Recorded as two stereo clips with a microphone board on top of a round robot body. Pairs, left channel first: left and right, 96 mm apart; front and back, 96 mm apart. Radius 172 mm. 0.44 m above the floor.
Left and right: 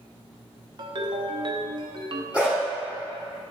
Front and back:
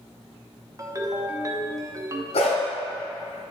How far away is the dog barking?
About 1.8 m.